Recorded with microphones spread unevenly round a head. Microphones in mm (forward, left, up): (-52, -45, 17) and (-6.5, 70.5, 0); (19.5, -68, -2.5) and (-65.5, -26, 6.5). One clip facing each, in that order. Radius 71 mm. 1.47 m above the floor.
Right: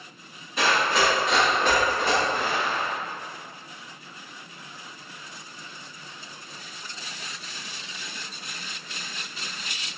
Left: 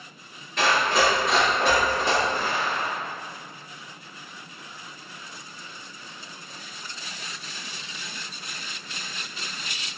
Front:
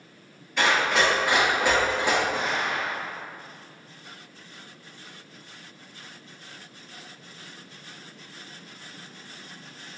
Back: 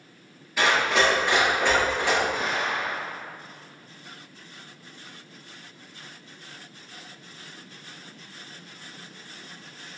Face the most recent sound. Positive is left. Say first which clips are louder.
# even, even
turn(degrees=-15)